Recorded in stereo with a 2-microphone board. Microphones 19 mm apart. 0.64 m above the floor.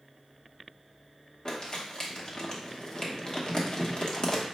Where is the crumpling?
40° left (ahead or behind), 0.9 m.